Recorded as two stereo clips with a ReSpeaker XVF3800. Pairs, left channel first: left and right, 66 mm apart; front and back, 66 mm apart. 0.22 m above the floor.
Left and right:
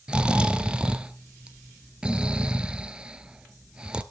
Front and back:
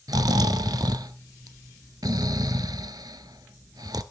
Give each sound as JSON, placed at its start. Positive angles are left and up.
{"t": 0.1, "sound": "snoring", "azimuth_deg": -165, "distance_m": 0.5}